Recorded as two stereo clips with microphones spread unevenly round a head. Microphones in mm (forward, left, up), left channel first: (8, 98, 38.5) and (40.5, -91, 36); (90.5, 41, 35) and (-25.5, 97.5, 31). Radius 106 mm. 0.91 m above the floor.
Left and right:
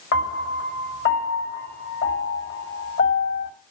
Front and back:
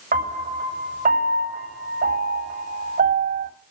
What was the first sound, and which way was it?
A piano, 135° left.